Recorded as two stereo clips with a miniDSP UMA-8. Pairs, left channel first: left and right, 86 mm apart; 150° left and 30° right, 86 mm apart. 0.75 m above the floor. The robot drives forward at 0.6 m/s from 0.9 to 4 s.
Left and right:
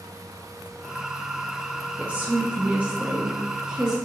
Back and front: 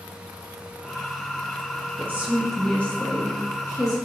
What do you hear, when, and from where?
2.0 s a woman speaking: 35° right, 0.7 m; by 4.0 s 170° right, 1.1 m